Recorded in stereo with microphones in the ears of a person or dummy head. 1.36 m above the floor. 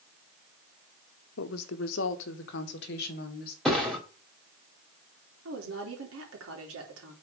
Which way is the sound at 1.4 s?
80° left.